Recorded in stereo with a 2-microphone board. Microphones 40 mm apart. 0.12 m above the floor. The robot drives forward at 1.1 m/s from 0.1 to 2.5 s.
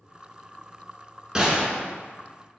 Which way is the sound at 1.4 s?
15° right (ahead or behind).